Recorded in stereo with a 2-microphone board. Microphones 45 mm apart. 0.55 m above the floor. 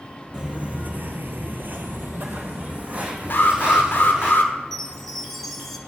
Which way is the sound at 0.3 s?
25° right (ahead or behind).